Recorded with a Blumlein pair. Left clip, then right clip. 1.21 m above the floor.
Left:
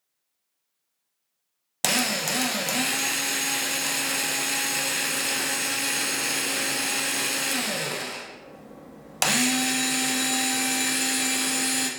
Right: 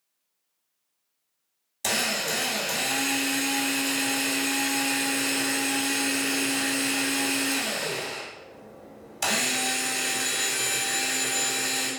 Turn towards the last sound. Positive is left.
turn(degrees=40)